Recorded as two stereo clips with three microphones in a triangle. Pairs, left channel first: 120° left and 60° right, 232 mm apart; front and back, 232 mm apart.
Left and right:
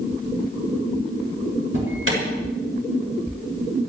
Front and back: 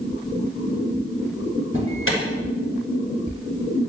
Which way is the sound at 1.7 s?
30° right.